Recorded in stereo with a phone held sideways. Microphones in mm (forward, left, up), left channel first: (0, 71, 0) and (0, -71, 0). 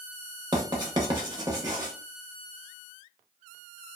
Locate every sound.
0.5 s writing: 30° right (ahead or behind), 0.8 m